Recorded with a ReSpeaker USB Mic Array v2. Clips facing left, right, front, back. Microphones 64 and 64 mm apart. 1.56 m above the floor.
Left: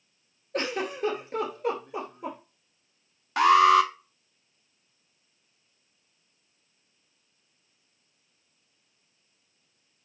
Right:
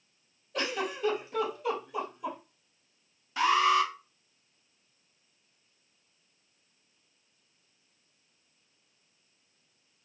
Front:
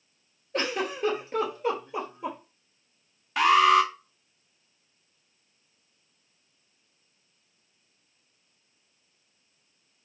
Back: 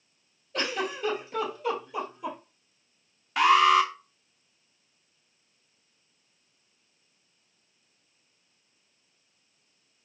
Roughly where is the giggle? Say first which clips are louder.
Left 3 dB, front 1 dB; ahead left.